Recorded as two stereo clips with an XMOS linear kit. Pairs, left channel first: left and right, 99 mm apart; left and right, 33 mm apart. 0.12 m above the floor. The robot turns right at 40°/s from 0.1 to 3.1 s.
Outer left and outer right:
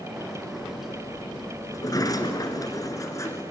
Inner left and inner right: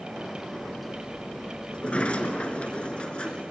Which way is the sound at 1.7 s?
65° left.